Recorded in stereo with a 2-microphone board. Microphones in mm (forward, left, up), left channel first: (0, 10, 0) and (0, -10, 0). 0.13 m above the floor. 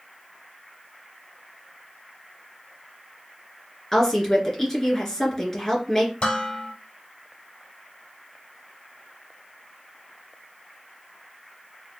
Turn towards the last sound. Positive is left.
turn(degrees=55)  # may be behind; listen again after turning